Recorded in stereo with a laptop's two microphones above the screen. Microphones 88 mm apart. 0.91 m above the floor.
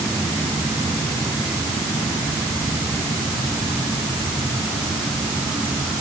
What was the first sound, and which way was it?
Only background noise.